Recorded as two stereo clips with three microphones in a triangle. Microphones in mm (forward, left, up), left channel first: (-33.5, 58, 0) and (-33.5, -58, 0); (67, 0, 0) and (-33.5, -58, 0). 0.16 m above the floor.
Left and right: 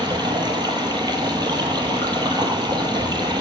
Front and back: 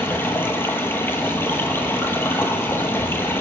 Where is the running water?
40° right, 0.8 m.